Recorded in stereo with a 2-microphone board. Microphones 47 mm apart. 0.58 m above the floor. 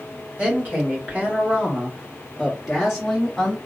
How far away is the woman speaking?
About 1.6 m.